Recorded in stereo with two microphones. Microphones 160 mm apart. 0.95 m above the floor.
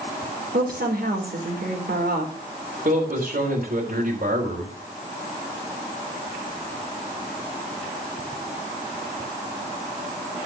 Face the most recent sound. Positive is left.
turn(degrees=-65)  # may be behind; listen again after turning